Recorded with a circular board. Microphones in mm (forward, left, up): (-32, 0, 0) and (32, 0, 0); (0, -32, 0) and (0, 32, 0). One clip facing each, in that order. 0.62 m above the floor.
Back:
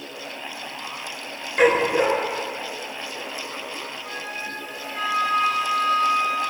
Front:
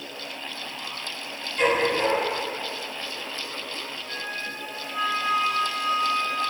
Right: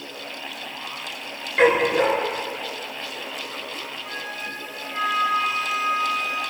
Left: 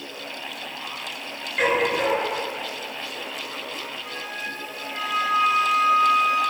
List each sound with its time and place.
1.6 s a dog barking: 155° right, 3.5 m
4.0 s a flute: straight behind, 5.5 m